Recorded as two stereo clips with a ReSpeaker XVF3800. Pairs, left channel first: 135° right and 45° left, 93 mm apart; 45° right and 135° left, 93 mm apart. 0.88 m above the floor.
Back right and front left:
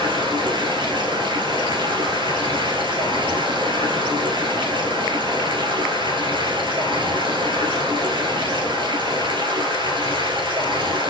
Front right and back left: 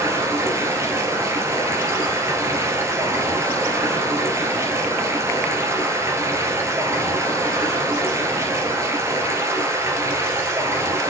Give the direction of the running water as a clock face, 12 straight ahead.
10 o'clock.